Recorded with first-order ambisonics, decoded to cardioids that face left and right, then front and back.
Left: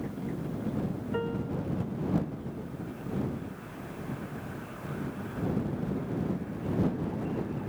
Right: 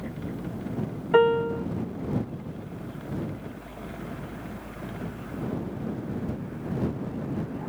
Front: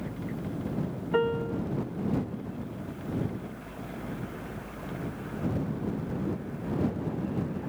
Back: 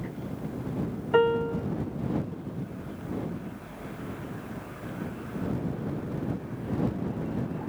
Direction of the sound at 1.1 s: 110° right.